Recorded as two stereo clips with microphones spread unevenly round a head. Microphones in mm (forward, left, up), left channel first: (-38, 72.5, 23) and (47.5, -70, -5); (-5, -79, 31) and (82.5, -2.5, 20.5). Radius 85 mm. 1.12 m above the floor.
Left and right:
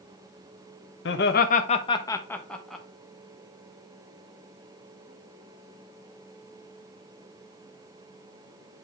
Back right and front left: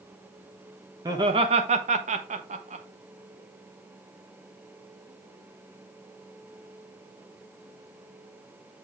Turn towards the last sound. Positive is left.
turn(degrees=30)